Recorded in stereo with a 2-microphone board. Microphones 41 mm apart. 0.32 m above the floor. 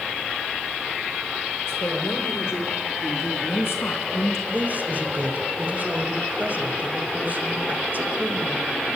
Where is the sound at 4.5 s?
40° right (ahead or behind), 1.9 m.